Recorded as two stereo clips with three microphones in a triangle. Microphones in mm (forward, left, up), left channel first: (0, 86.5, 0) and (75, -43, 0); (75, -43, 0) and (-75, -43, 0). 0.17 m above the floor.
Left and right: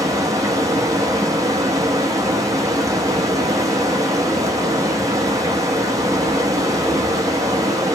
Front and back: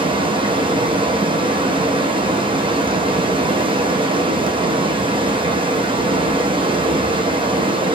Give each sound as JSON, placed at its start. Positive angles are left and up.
{"t": 0.0, "sound": "running water", "azimuth_deg": -125, "distance_m": 1.0}